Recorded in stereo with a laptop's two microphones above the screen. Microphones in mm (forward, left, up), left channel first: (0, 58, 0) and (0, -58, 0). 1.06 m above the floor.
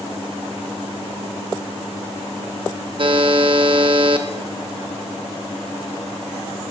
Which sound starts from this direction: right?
A buzzer, at 3.0 s.